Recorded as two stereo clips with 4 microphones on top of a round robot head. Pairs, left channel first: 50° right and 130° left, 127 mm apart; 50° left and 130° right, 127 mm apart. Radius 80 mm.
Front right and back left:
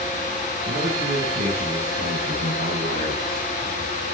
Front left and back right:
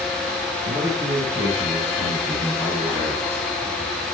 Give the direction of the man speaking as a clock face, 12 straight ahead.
6 o'clock.